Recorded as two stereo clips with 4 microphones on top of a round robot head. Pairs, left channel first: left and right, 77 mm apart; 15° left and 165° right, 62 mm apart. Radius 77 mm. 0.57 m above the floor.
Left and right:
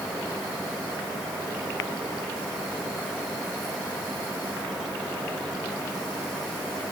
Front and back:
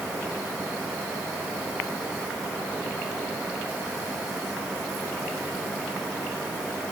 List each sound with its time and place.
Only background noise.